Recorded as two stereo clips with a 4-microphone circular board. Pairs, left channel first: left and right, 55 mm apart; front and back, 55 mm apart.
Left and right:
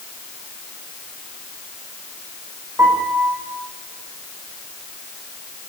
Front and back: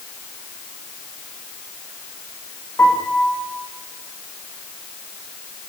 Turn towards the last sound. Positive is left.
turn(degrees=-50)